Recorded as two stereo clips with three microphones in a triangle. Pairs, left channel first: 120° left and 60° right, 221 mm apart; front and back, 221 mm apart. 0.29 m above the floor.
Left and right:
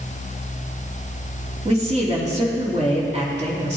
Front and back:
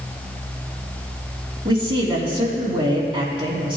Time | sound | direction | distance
1.6 | a man speaking | 115° right | 3 m